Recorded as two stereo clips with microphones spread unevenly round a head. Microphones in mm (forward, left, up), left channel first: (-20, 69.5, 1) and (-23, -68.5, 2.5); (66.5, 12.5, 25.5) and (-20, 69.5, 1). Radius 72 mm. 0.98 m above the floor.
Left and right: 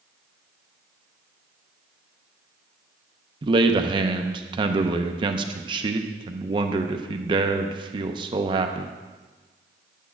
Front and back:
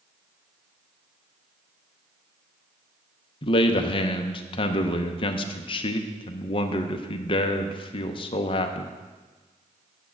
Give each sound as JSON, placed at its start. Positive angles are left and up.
{"t": 3.4, "sound": "a man speaking", "azimuth_deg": -60, "distance_m": 0.6}